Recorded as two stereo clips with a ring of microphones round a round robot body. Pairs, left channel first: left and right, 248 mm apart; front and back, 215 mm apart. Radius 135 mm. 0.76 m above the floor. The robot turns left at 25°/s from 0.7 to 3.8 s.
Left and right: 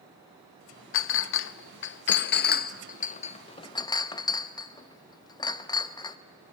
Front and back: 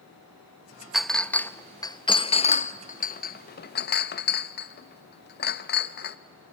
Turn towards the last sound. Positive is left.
turn(degrees=20)